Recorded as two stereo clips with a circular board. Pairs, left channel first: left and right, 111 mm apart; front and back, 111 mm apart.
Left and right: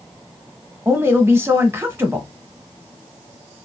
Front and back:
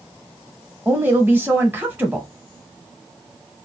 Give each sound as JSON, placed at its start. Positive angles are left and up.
{"t": 0.8, "sound": "a woman speaking", "azimuth_deg": -135, "distance_m": 1.0}